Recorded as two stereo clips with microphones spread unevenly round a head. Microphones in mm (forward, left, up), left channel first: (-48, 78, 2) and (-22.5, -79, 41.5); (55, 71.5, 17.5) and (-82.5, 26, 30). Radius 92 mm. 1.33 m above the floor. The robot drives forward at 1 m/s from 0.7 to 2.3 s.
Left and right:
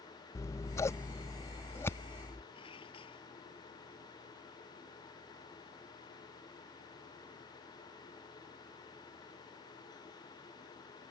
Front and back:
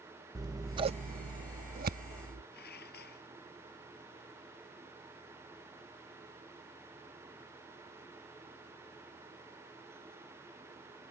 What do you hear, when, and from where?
0.3 s scissors: 175° right; by 2.4 s straight behind
2.5 s dishes clattering: 35° left